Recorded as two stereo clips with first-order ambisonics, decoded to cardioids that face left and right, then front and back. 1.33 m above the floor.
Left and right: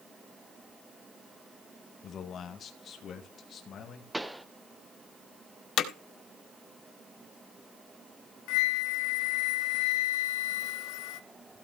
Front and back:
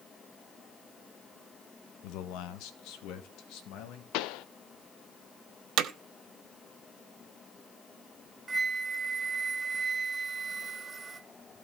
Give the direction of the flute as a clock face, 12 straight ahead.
8 o'clock.